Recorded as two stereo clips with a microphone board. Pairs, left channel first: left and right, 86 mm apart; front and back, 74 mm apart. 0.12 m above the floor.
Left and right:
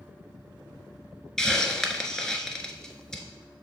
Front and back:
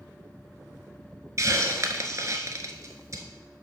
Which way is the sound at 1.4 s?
170° left.